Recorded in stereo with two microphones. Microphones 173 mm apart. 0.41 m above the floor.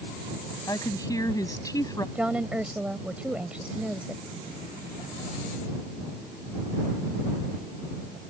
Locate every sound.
0.7 s a woman speaking: 20° left (ahead or behind)
2.1 s a woman speaking: 5° right (ahead or behind)